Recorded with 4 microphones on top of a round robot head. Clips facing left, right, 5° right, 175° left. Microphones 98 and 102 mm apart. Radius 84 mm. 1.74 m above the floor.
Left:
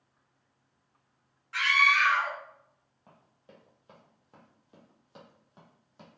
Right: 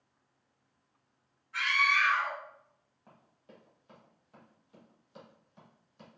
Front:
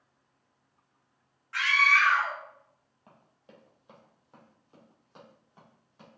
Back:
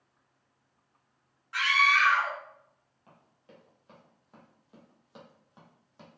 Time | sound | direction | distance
1.5 | a scream | 100° left | 1.7 m
3.1 | running footsteps | 20° left | 1.9 m